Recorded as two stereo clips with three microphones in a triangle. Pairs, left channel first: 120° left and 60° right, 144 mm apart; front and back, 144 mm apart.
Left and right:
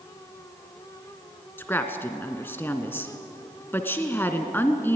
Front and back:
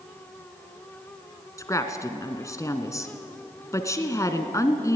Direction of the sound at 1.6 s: 55° left.